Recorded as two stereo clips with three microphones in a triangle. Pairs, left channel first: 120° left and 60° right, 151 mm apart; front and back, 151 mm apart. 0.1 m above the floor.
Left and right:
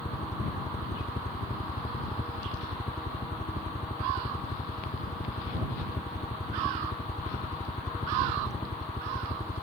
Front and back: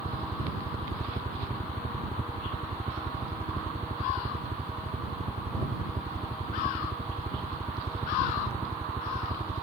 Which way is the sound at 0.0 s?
140° left.